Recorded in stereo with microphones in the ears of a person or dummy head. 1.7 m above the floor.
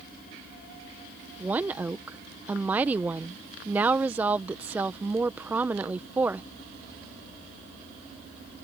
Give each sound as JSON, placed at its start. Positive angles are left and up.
{"t": 1.4, "sound": "a woman speaking", "side_deg": -10}